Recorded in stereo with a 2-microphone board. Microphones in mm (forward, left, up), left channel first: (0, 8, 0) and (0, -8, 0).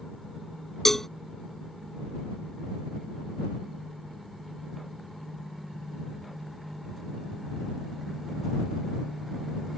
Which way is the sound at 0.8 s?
20° left (ahead or behind).